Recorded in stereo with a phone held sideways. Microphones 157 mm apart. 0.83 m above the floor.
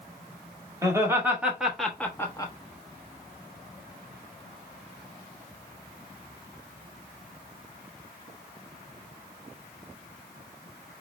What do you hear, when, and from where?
0.8 s laughter: 20° right (ahead or behind), 1.3 m; by 2.5 s 25° left (ahead or behind), 0.9 m